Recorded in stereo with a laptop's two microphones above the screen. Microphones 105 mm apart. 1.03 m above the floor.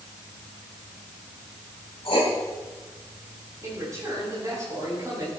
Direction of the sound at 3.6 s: 35° right (ahead or behind).